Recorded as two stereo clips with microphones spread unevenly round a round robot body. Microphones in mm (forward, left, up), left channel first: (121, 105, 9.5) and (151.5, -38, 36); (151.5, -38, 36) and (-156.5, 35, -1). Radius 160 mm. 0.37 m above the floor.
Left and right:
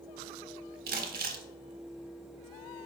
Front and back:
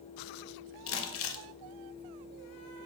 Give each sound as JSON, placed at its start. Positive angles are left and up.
{"t": 0.9, "sound": "crumpling", "azimuth_deg": -60, "distance_m": 0.5}